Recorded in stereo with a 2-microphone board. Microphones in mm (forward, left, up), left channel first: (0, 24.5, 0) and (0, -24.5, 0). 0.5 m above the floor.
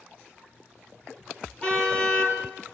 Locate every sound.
1.6 s a car horn: 20° left (ahead or behind), 6.5 m